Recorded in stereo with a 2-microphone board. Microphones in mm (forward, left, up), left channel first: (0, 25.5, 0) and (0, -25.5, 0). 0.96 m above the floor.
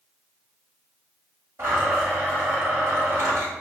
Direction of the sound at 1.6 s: 60° right (ahead or behind).